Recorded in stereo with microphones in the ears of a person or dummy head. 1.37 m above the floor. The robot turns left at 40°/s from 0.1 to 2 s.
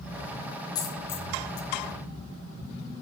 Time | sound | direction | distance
0.8 | a dropped coin | 25° left (ahead or behind) | 1.2 m